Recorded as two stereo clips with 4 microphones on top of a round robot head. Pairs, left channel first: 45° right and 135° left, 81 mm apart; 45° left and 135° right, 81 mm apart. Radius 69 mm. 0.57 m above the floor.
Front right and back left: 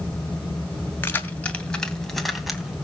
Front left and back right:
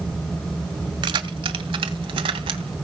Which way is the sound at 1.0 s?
110° right.